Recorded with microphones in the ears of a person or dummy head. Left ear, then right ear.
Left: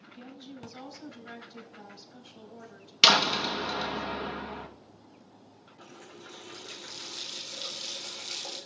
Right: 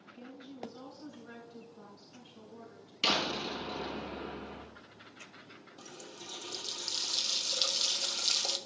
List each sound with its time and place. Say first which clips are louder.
0.1 s a woman speaking: left 3 dB; 40° left (ahead or behind), 4 m
3.0 s a door slam: left 10 dB; 65° left (ahead or behind), 1.2 m
5.8 s a running tap: even; 55° right (ahead or behind), 1.2 m